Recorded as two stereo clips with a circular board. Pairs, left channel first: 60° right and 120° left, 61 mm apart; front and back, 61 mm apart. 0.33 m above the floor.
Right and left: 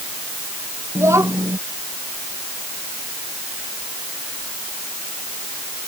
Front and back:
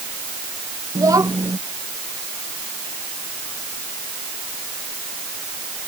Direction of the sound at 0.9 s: 160° left.